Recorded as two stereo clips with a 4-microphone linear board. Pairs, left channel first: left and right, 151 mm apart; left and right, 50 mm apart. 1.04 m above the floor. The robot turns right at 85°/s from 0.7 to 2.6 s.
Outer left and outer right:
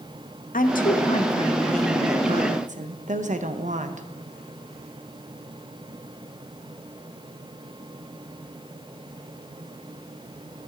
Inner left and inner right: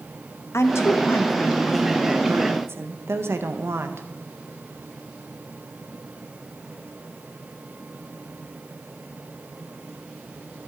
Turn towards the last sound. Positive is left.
turn(degrees=-115)